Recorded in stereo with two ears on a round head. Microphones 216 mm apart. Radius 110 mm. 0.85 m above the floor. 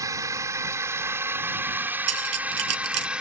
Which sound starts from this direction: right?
Cutlery clinking, at 2.1 s.